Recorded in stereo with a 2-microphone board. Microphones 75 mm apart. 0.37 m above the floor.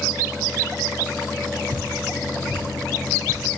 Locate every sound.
1.7 s dripping: 80° left, 4.5 m